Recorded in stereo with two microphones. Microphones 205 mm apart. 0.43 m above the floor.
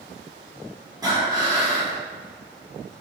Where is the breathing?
20° right (ahead or behind), 1.0 m.